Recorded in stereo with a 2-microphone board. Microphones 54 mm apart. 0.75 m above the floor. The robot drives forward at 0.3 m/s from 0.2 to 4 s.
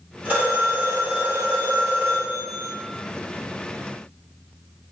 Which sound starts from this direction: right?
A phone ringing, at 0.2 s.